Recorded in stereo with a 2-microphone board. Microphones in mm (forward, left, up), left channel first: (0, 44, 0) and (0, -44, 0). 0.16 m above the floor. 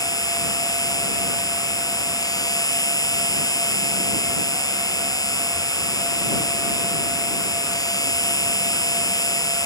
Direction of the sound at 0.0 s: 45° left (ahead or behind).